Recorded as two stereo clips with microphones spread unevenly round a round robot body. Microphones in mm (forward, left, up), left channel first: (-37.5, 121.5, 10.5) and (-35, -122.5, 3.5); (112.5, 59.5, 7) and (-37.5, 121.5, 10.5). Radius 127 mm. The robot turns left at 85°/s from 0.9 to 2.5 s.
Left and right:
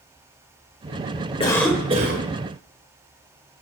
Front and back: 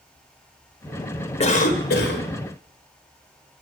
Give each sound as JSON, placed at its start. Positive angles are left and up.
{"t": 1.4, "sound": "a cough", "azimuth_deg": 25, "distance_m": 2.0}